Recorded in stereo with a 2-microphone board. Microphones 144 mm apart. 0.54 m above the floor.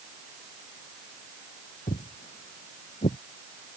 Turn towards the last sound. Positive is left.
turn(degrees=65)  # may be behind; listen again after turning